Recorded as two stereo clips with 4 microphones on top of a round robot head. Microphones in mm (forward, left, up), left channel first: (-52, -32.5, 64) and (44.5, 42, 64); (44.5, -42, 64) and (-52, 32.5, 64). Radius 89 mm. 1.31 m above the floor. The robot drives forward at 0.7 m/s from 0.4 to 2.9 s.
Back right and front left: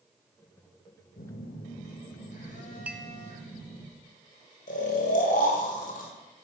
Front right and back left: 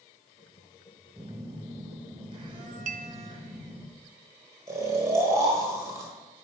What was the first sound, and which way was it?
A phone buzzing, 145° right.